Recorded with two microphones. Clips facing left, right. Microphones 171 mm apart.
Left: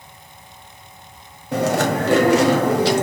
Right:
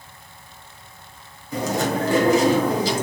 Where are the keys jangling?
No keys jangling in this recording.